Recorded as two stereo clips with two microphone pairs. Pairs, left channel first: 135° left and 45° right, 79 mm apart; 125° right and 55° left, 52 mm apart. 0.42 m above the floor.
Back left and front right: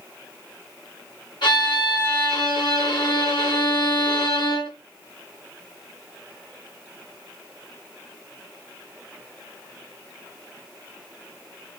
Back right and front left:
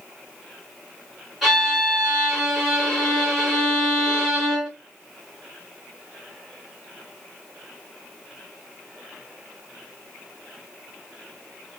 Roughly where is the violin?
Behind left.